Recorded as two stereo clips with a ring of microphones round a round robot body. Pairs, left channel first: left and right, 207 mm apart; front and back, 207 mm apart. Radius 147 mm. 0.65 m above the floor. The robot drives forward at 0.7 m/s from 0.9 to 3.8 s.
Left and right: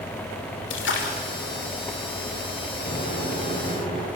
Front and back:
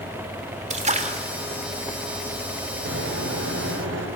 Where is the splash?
125° left, 2.5 m; by 1.2 s 130° left, 3 m.